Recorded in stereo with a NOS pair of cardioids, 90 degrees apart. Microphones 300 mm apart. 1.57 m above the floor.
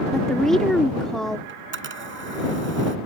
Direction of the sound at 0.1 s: Straight ahead.